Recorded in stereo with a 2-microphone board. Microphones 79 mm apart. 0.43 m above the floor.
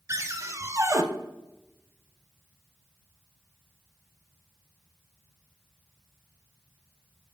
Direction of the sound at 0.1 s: 40° right (ahead or behind).